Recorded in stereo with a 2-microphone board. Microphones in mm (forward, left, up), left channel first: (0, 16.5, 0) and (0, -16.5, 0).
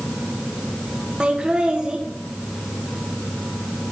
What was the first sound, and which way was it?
Laughter, 25° right (ahead or behind).